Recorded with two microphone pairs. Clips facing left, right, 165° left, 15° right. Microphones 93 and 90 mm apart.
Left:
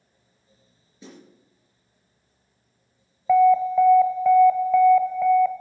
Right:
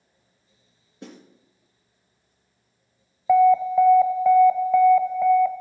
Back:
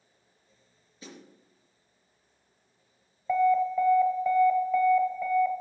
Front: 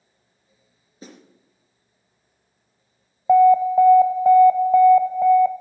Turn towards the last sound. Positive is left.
turn(degrees=-15)